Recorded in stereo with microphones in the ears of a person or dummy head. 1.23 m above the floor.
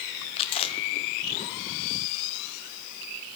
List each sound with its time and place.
0.4 s chewing: 20° left (ahead or behind), 0.7 m